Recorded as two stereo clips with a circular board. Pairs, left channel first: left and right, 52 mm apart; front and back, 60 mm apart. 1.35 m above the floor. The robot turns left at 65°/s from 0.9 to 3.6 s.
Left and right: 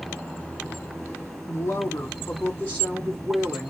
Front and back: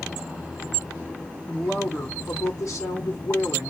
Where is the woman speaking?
100° left, 3 m; by 3.7 s 35° right, 3 m.